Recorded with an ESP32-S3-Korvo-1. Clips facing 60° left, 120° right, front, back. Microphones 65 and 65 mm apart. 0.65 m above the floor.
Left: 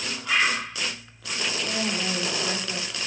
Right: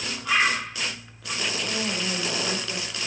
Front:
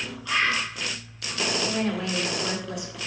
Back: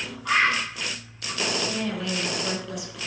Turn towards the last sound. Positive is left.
turn(degrees=15)